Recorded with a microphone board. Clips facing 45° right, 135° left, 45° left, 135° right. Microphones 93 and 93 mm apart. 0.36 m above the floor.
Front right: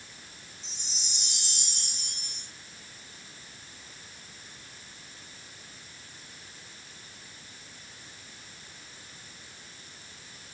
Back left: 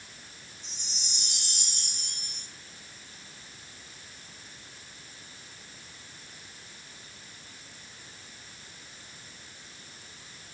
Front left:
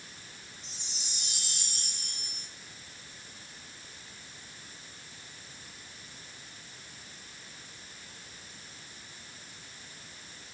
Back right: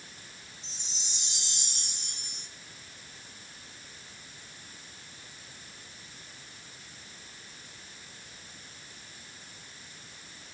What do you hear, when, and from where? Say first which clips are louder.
0.6 s a chime: even, even; 165° left, 3.5 m